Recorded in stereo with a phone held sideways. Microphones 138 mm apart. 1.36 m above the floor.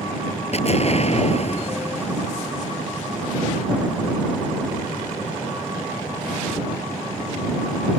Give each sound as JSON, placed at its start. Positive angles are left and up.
{"t": 0.5, "sound": "an explosion", "side_deg": 50}